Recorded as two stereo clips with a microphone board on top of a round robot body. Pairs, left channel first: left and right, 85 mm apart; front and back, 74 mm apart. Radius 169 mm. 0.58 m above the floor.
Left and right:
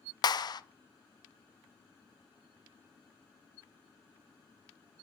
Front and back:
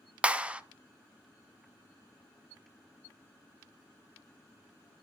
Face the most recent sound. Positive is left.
turn(degrees=110)